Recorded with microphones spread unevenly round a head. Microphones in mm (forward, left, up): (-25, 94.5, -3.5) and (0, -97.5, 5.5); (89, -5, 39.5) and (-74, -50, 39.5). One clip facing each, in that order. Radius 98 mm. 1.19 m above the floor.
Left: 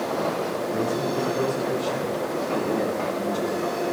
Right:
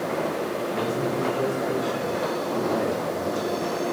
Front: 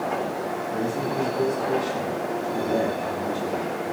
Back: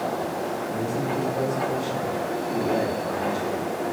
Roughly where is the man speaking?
Behind left.